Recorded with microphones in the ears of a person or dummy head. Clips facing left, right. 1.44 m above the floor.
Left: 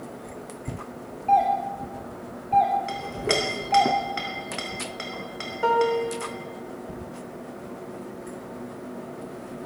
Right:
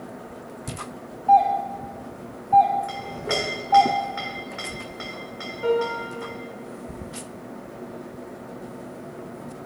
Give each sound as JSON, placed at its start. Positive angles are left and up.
{"t": 1.3, "sound": "a doorbell", "side_deg": 25, "distance_m": 1.0}
{"t": 2.9, "sound": "a clink", "side_deg": 40, "distance_m": 1.0}
{"t": 5.6, "sound": "a piano", "side_deg": 70, "distance_m": 0.9}